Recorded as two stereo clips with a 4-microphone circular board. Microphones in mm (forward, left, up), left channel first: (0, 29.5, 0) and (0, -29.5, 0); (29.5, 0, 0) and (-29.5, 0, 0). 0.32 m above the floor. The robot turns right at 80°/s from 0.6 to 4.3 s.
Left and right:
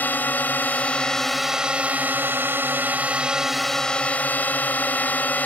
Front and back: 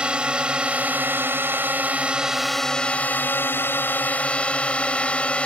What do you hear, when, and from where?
0.0 s a drone: 120° left; by 5.5 s 55° left